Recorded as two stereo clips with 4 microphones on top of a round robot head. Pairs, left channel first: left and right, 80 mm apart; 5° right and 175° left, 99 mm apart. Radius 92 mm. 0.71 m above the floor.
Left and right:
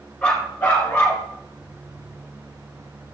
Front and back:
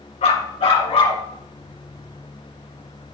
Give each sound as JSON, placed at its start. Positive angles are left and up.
{"t": 0.2, "sound": "a dog barking", "azimuth_deg": 10, "distance_m": 2.5}